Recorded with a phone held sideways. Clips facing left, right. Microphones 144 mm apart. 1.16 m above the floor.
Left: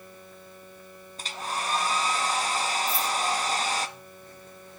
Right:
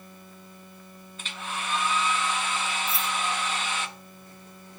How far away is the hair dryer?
About 0.6 m.